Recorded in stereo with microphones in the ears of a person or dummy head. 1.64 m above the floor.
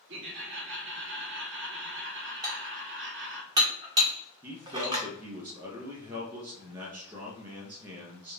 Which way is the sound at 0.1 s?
65° right (ahead or behind).